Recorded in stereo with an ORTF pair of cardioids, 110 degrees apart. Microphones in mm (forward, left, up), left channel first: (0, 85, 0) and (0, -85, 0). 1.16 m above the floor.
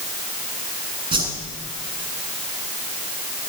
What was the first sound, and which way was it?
A whoosh, 30° right.